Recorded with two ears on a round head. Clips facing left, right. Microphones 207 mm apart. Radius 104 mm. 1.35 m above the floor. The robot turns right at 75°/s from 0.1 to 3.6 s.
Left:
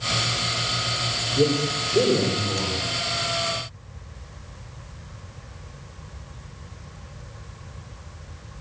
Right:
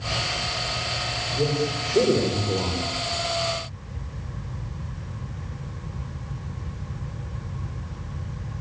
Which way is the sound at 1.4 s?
135° left.